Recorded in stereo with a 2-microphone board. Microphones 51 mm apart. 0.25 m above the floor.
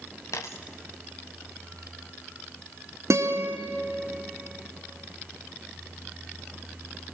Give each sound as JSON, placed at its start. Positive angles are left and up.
{"t": 0.3, "sound": "a dropped coin", "side_deg": 85, "distance_m": 1.6}
{"t": 3.1, "sound": "a guitar", "side_deg": -70, "distance_m": 2.5}